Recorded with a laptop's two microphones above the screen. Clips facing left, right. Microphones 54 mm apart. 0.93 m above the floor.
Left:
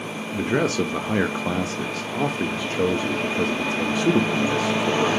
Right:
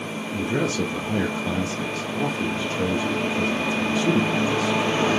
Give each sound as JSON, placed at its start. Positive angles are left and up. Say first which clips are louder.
{"t": 0.3, "sound": "a man speaking", "louder": "left 3 dB", "side_deg": 60, "distance_m": 1.0}